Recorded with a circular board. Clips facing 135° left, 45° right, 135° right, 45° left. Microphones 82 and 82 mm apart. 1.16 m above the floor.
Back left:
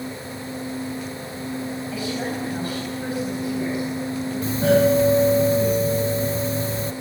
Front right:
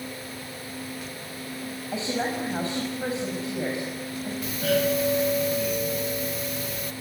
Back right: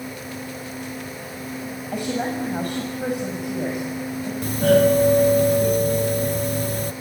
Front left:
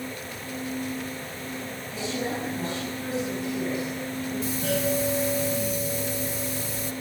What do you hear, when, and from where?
1.9 s a woman speaking: 105° right, 6.5 m
4.4 s a doorbell: 165° right, 1.1 m